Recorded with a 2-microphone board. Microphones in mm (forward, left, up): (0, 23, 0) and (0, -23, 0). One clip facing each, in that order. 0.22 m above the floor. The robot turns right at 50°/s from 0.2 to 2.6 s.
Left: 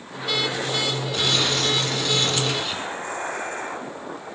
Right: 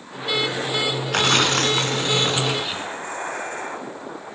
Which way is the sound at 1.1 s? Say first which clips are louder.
Right 6 dB; 85° right.